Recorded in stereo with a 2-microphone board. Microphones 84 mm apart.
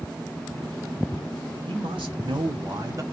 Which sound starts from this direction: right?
A man speaking, at 1.7 s.